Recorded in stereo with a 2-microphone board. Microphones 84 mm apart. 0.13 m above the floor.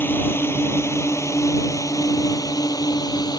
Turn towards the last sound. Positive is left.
turn(degrees=55)  # may be behind; listen again after turning